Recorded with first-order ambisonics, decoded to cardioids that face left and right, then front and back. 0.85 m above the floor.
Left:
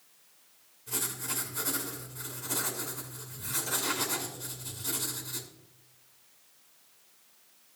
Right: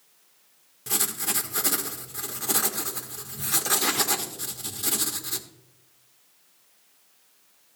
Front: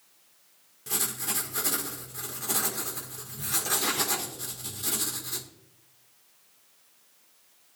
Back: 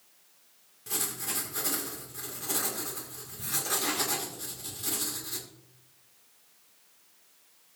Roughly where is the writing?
Right.